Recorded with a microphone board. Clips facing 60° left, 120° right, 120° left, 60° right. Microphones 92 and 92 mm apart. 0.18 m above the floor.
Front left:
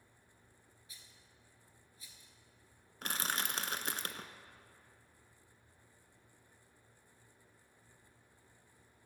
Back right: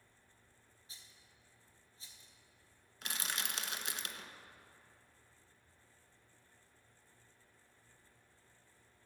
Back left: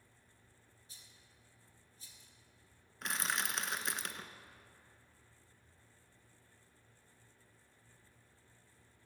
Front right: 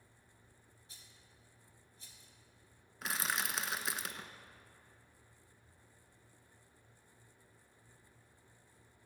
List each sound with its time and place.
0.9 s a rattle: 60° right, 1.2 m
3.0 s crushing: 25° left, 0.5 m